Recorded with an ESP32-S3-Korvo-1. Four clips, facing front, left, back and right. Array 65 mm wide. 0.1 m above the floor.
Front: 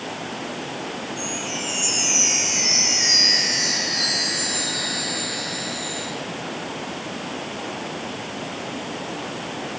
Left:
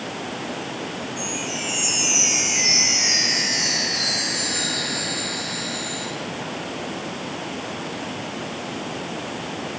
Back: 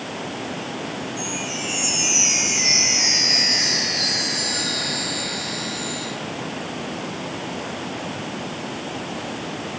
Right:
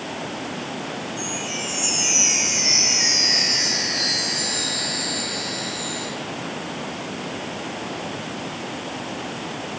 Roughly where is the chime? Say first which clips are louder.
Even, back 1 dB; behind left.